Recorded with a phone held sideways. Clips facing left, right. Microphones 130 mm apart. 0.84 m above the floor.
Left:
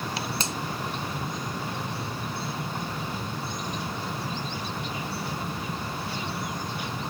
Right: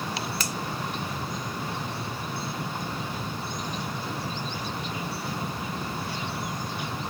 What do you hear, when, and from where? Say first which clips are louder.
0.4 s a finger snap: left 1 dB; 25° left (ahead or behind)